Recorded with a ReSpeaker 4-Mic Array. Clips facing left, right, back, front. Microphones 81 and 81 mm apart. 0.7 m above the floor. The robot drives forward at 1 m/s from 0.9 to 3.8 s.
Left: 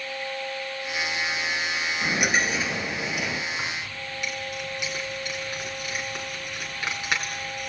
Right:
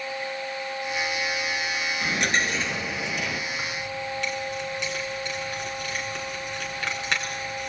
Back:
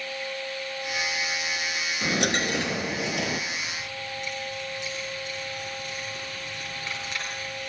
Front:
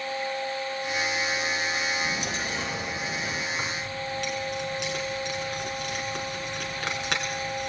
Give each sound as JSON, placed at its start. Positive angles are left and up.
{"t": 2.0, "sound": "a dropped coin", "azimuth_deg": 170, "distance_m": 2.0}
{"t": 3.5, "sound": "keys jangling", "azimuth_deg": 10, "distance_m": 7.0}